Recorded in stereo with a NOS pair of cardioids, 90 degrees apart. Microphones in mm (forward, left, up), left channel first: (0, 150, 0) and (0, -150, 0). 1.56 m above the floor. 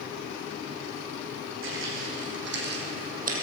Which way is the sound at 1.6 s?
45° right.